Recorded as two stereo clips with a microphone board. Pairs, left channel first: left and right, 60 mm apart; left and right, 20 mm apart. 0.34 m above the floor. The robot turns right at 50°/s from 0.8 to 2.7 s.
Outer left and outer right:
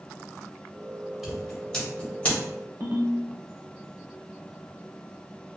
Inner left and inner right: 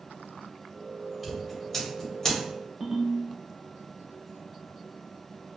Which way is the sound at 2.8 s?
40° right (ahead or behind).